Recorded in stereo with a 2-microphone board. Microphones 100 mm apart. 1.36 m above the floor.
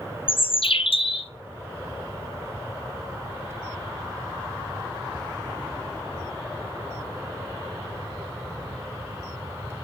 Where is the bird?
70° left (ahead or behind), 0.8 m.